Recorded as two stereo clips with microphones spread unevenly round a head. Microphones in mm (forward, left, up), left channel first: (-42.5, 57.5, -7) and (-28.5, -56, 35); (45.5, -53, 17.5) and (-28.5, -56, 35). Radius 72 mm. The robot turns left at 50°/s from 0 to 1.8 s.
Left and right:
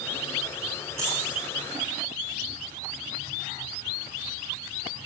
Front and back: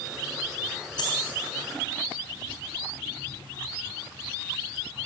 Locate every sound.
1.0 s a dropped coin: 25° right, 3 m; by 1.2 s 35° right, 3 m